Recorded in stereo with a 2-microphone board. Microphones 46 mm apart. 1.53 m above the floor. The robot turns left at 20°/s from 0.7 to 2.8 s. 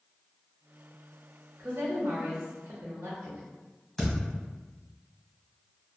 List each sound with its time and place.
1.6 s a woman speaking: 75° right (ahead or behind), 0.8 m
4.0 s a thud: 5° left (ahead or behind), 1.5 m